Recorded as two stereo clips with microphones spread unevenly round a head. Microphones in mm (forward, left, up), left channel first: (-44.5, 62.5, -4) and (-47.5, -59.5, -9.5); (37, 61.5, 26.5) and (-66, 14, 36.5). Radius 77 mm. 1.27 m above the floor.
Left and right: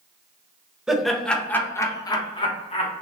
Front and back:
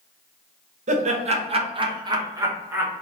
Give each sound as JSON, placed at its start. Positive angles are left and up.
{"t": 0.9, "sound": "laughter", "azimuth_deg": -175, "distance_m": 1.1}